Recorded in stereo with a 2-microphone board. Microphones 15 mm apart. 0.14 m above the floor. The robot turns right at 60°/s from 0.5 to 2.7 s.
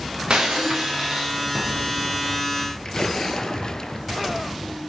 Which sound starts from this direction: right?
Breaking glass, at 0.3 s.